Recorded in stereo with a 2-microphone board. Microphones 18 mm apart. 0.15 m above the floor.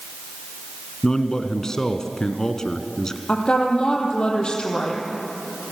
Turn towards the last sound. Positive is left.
turn(degrees=50)  # may be behind; listen again after turning